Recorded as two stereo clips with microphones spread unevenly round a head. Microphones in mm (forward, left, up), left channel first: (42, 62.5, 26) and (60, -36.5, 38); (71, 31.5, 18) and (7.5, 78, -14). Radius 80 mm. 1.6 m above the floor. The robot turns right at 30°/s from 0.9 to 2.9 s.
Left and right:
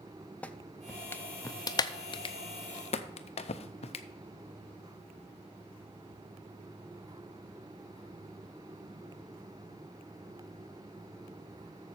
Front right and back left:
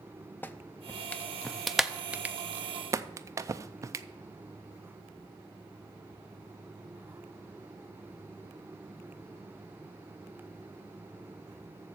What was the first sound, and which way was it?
A clap, 20° left.